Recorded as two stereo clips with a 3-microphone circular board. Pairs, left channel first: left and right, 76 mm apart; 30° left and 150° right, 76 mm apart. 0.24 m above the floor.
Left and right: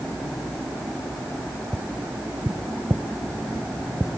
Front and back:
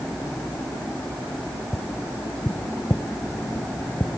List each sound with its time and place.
1.7 s tapping: 30° right